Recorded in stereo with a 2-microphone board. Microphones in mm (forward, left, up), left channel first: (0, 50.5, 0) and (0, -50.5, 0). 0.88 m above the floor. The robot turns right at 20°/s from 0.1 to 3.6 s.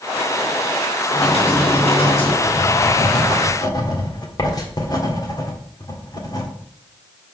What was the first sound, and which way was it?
Typing on a keyboard, 85° left.